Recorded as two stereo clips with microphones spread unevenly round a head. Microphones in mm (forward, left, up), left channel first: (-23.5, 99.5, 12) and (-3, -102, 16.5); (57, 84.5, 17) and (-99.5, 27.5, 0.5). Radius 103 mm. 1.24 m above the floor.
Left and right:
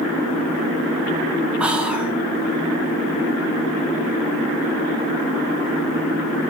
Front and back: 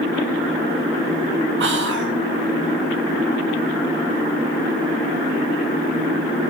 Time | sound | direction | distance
1.6 | whispering | 170° right | 1.0 m